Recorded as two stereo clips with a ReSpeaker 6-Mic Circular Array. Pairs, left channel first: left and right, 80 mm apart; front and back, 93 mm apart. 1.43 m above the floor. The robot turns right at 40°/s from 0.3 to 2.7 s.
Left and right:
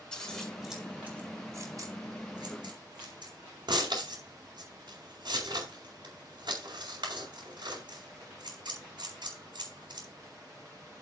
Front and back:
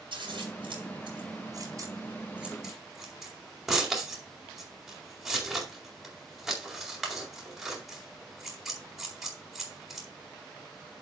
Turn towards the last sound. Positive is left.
turn(degrees=-95)